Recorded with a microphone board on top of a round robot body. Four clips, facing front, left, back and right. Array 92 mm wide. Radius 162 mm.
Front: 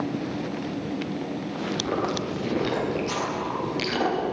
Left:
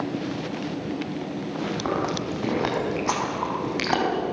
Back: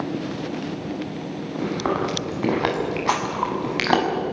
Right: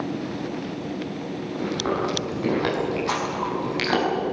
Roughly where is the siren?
I don't hear a siren.